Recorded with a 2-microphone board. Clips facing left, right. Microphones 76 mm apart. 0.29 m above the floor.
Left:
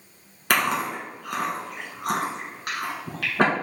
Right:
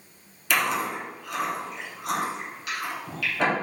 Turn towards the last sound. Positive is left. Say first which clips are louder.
# left 2 dB
turn(degrees=55)  # may be behind; listen again after turning